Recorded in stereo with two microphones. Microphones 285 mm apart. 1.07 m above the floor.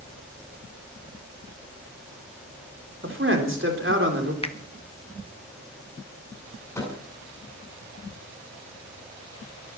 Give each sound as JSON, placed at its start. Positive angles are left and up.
{"t": 3.0, "sound": "a man speaking", "side_deg": -40, "distance_m": 3.5}
{"t": 4.4, "sound": "a finger snap", "side_deg": 20, "distance_m": 1.1}
{"t": 6.8, "sound": "a microwave", "side_deg": 10, "distance_m": 10.0}